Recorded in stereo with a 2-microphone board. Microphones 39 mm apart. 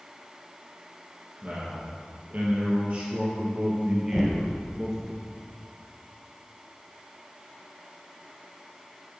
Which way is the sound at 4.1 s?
10° right (ahead or behind).